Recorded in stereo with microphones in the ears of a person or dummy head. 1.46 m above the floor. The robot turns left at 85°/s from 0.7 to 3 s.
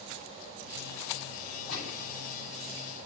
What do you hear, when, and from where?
1.7 s a gunshot: 65° left (ahead or behind), 10 m; by 2.0 s 85° left, 10 m